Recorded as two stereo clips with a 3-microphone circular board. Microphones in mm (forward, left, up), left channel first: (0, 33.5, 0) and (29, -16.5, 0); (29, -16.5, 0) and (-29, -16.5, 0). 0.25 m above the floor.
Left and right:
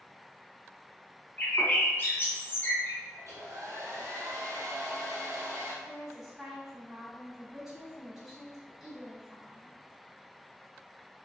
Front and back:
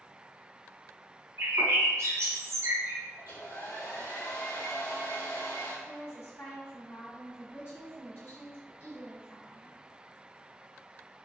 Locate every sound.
1.4 s a bird: 165° left, 1.0 m
3.2 s a hair dryer: 25° right, 1.5 m
5.8 s a woman speaking: 20° left, 1.9 m